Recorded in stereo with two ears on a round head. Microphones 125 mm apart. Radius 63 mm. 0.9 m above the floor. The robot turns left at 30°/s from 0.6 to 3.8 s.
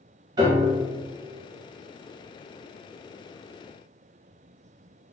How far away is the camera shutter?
No camera shutter in this recording.